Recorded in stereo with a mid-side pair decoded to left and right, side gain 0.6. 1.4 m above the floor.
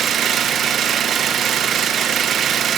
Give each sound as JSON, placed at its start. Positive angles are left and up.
{"t": 0.0, "sound": "an engine running", "azimuth_deg": -50, "distance_m": 1.2}